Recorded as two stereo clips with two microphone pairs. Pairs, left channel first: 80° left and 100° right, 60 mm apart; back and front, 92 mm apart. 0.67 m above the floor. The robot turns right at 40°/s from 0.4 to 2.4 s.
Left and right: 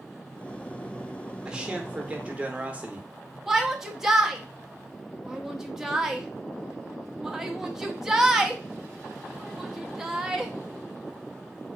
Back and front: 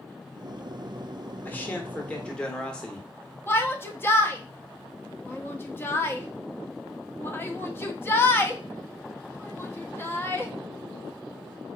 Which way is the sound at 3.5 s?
Straight behind.